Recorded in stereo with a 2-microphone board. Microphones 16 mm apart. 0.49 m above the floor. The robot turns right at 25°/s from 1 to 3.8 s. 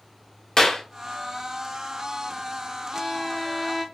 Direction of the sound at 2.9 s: 15° left (ahead or behind).